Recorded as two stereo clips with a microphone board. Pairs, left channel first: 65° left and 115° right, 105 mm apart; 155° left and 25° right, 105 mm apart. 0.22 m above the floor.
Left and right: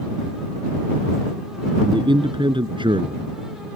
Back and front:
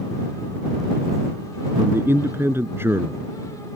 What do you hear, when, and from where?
1.8 s a man speaking: 85° right